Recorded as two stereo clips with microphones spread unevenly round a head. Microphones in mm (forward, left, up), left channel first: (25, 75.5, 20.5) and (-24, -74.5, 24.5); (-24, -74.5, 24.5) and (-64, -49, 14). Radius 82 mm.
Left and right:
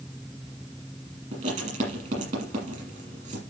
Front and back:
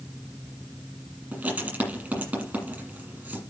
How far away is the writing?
About 7 m.